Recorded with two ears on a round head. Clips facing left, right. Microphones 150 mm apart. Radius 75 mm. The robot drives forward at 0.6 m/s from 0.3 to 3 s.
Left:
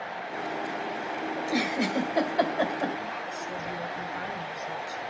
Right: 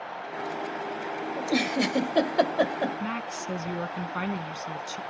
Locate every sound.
1.4 s a giggle: 35° right (ahead or behind), 1.7 m; by 2.9 s 40° right (ahead or behind), 1.6 m
3.0 s a woman speaking: 75° right (ahead or behind), 1.3 m